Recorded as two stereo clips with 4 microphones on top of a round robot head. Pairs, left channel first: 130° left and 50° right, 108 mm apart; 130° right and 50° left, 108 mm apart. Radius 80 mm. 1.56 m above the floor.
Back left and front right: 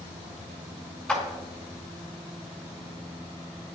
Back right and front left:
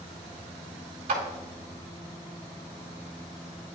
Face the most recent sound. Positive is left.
turn(degrees=55)